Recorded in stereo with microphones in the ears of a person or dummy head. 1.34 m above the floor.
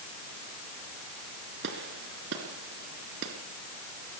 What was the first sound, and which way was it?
A gunshot, 70° right (ahead or behind).